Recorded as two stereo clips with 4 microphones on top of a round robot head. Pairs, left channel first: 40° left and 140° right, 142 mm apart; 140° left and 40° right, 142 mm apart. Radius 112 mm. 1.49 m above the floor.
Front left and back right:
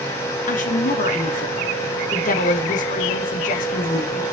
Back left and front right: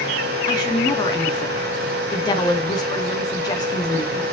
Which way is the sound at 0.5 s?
75° left.